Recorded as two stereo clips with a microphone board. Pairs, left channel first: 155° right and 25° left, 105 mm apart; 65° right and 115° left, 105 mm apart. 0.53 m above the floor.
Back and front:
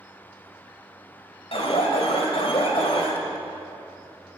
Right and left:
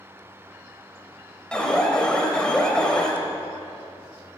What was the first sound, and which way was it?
An alarm, 150° right.